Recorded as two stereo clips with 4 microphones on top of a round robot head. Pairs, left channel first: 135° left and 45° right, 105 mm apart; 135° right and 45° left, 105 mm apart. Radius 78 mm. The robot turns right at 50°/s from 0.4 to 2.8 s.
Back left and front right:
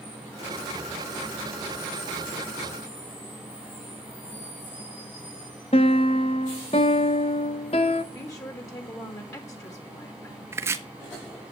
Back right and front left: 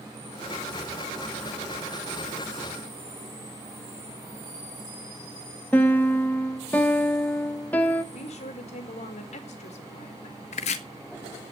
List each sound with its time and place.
5.7 s a piano: 150° left, 0.8 m
8.1 s a woman speaking: 160° right, 3 m
10.5 s chopping: 110° right, 1.2 m